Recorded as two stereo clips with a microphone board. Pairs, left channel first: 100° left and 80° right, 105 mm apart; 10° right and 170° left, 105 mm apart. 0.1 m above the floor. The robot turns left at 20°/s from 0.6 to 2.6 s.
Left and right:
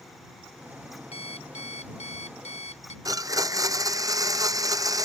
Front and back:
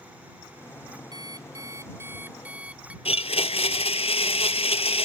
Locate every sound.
1.1 s an alarm clock: 120° left; by 3.0 s 90° left
3.0 s a blender: 25° right